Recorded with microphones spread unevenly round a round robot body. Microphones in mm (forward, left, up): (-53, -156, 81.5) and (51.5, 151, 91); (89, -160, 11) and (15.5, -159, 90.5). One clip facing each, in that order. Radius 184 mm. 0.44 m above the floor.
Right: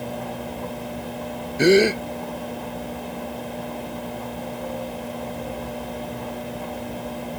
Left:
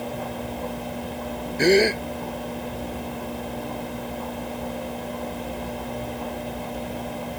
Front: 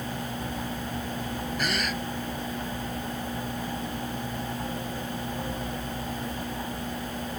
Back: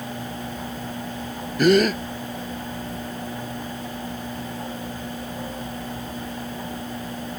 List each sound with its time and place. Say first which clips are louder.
1.6 s a gasp: right 3 dB, back 17 dB; 175° left